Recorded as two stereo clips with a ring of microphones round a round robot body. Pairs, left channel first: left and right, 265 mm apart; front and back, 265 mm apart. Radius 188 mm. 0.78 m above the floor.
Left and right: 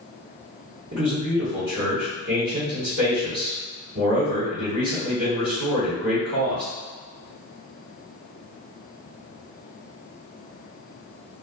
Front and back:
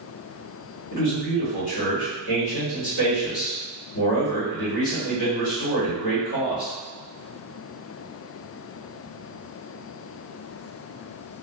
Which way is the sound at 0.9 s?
35° right.